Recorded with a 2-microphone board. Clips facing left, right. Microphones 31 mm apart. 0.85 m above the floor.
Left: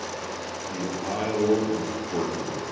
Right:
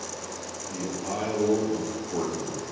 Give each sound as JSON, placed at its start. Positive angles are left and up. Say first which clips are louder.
{"t": 0.7, "sound": "a man speaking", "louder": "left 1 dB", "side_deg": 20, "distance_m": 1.0}